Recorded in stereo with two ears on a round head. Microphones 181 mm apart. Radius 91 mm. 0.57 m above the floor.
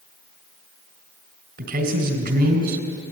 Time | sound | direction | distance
1.6 | a man speaking | 50° right (ahead or behind) | 3.5 m